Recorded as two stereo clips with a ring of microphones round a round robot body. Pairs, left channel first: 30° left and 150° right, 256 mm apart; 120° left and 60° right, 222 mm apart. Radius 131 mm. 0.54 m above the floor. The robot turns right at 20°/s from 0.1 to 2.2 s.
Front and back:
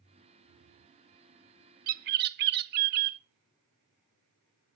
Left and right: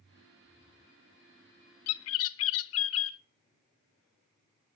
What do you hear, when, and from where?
1.9 s a bird: 150° left, 0.5 m; by 3.2 s 160° left, 0.5 m